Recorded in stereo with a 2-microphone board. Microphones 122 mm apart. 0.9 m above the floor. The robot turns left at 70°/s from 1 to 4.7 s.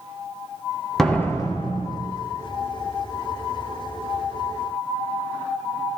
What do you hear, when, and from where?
1.0 s a door slam: 175° left, 2.5 m; by 2.0 s 110° left, 2.5 m